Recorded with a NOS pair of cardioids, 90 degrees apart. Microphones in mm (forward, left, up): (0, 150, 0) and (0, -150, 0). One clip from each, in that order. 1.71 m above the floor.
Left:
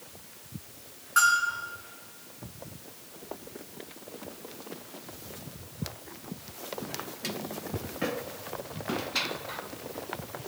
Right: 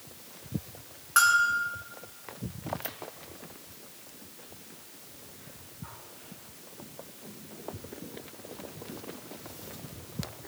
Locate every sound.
1.2 s a bell: 40° right, 4 m